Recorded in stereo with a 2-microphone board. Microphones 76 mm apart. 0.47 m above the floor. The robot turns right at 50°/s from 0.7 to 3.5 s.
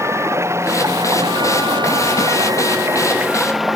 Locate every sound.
0.0 s running water: 140° right; by 3.8 s straight ahead